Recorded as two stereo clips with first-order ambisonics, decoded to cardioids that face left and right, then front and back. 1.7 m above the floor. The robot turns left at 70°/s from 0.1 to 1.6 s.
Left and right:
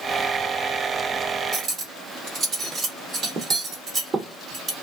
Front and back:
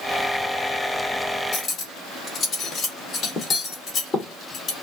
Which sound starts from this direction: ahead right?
Cutlery clinking, at 1.5 s.